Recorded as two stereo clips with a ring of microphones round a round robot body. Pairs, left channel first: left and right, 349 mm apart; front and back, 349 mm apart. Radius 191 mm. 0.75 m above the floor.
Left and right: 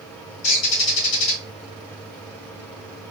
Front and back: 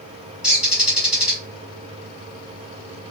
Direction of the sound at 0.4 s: 90° left.